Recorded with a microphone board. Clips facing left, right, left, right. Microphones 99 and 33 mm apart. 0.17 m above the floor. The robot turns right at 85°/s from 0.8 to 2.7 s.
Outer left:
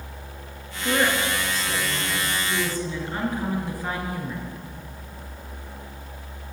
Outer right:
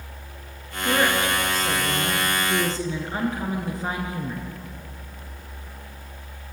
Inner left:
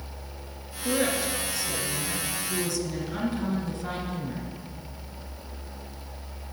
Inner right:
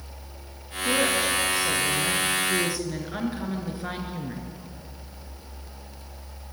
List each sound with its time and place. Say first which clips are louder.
0.8 s a woman speaking: outer right 1 dB, inner right 3 dB; 175° left, 2.5 m; by 4.5 s 25° right, 2.5 m